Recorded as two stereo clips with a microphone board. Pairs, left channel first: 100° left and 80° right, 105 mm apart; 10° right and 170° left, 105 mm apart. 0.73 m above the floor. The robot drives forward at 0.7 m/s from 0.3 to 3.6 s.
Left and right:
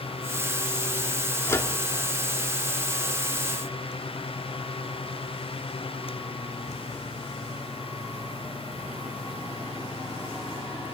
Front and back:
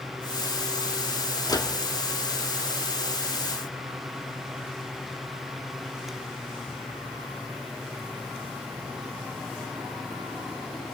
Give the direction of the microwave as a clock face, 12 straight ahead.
11 o'clock.